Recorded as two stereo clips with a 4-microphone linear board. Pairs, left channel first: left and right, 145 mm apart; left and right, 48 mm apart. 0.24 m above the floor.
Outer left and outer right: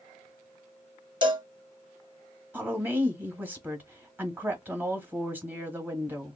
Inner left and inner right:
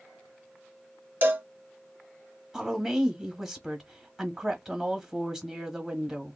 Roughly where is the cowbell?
Right.